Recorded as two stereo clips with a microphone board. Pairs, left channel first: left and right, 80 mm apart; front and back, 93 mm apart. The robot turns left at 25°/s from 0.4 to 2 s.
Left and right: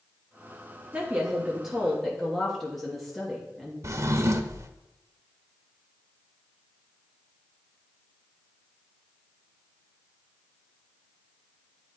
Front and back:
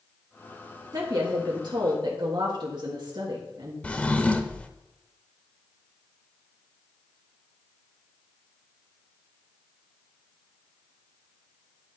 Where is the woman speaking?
155° right, 1.3 m; by 3.7 s straight behind, 1.3 m.